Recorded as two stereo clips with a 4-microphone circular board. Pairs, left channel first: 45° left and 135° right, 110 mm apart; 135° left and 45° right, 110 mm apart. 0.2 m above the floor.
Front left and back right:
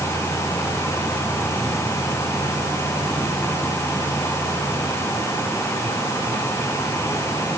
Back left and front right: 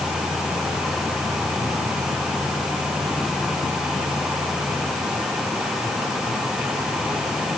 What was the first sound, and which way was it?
Only background noise.